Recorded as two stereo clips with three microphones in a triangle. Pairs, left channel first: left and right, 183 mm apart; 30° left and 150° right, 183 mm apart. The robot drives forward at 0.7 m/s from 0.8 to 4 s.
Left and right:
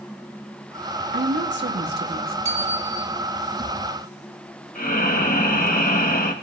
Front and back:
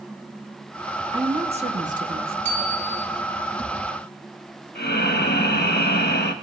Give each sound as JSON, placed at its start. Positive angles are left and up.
{"t": 1.1, "sound": "a woman speaking", "azimuth_deg": -80, "distance_m": 1.2}
{"t": 2.5, "sound": "a bicycle bell", "azimuth_deg": 35, "distance_m": 3.5}
{"t": 4.8, "sound": "breathing", "azimuth_deg": 55, "distance_m": 1.1}